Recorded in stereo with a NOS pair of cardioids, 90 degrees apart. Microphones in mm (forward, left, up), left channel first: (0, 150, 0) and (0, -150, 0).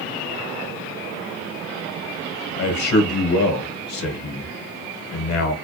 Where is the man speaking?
65° left, 1.6 m.